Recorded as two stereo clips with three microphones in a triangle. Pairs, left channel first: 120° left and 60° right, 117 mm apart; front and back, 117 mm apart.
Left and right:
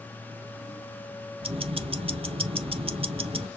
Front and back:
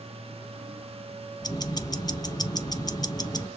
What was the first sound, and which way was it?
Ticking, 45° right.